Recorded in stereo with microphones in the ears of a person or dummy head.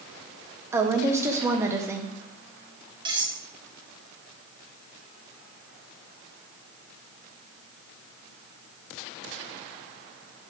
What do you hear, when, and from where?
0.7 s a woman speaking: 10° right (ahead or behind), 0.7 m
3.0 s cutlery clinking: 20° right (ahead or behind), 1.4 m